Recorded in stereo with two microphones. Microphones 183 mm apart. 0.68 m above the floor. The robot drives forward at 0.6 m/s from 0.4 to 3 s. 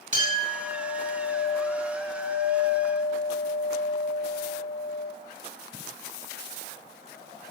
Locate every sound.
0.1 s a clink: 40° right (ahead or behind), 3.5 m; by 5.1 s 30° right (ahead or behind), 5 m